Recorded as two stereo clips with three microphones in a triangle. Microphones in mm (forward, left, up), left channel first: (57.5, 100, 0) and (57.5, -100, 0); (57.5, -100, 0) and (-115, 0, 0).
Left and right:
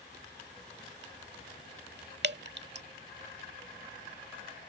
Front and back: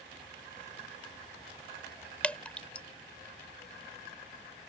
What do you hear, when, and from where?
2.2 s dripping: 115° right